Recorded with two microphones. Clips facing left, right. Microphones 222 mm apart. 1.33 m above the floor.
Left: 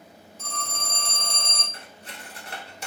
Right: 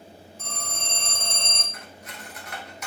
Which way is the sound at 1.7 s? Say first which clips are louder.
Right 1 dB; 30° left (ahead or behind).